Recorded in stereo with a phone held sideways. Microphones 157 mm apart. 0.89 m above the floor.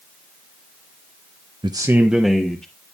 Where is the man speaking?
30° right (ahead or behind), 0.7 m; by 2.6 s 10° left (ahead or behind), 1.5 m.